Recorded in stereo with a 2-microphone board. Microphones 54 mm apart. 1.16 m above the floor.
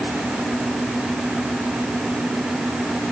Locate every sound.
Only background noise.